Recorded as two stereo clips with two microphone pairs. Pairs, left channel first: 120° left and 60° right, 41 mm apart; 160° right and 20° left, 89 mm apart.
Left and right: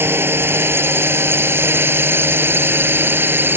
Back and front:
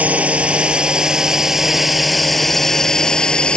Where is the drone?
55° right; by 3.6 s 85° right.